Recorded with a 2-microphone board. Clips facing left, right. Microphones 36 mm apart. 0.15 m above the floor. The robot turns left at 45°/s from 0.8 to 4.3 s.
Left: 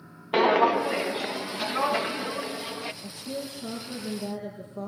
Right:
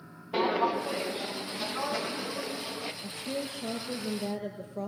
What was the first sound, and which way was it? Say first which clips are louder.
Footsteps: left 6 dB; 80° left.